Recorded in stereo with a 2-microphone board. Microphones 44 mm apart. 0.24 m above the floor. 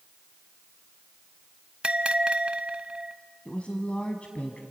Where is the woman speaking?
30° left (ahead or behind), 1.5 m.